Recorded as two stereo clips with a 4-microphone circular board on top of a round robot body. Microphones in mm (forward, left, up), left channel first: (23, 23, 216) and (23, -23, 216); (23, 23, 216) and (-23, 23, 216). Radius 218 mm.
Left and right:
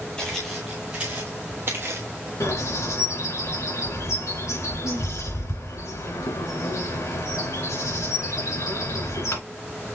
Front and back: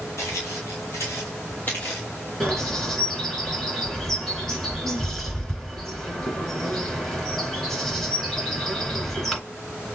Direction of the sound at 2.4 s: 85° left.